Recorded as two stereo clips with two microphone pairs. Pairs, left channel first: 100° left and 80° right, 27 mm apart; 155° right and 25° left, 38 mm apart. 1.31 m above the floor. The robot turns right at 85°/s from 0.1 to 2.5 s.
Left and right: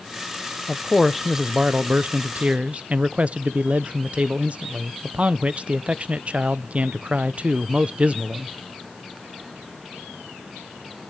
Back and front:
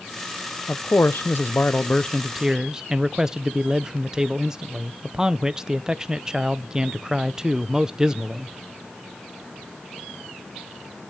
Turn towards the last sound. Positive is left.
turn(degrees=-50)